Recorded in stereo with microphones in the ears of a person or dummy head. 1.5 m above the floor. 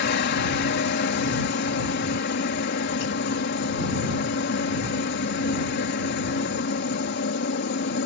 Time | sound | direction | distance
0.0 | a helicopter | 50° left (ahead or behind) | ?